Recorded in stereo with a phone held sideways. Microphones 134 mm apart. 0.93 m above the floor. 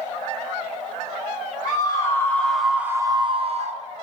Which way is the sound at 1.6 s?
30° left (ahead or behind).